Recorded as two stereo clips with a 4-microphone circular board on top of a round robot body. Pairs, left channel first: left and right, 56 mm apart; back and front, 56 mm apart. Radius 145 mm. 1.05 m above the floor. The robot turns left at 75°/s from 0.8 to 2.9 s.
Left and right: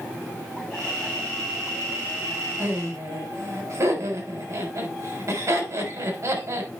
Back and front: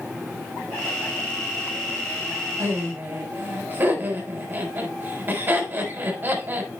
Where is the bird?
I don't hear a bird.